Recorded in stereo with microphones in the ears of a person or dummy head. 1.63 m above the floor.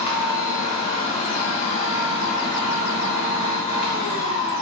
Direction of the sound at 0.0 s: 35° left (ahead or behind).